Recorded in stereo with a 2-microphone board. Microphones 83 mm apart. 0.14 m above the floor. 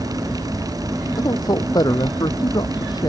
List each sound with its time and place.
1.2 s a man speaking: 55° left (ahead or behind)